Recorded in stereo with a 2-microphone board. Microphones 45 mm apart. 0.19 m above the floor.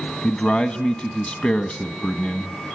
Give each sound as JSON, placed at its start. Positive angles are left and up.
{"t": 0.2, "sound": "a man speaking", "side_deg": 30, "distance_m": 1.1}